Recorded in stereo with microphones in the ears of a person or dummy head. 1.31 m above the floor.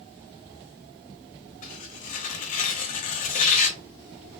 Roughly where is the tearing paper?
Left.